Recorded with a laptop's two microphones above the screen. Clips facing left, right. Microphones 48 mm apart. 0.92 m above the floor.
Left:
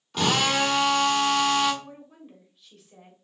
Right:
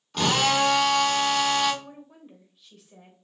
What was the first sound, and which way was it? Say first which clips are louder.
A drill: right 1 dB; centre (ahead or behind).